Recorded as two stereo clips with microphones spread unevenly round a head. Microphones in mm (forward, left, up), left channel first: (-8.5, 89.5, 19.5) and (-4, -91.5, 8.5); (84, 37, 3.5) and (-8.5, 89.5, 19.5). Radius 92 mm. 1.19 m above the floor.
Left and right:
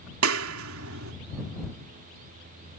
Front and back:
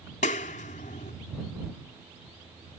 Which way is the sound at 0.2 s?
75° right.